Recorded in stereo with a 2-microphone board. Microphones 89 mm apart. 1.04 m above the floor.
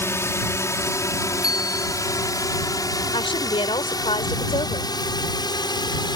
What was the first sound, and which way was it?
A drone, 30° left (ahead or behind).